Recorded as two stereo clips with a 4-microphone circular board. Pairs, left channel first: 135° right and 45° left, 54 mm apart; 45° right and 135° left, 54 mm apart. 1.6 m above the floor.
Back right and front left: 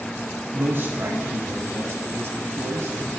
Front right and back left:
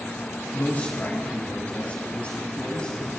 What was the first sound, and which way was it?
A man speaking, 5° left.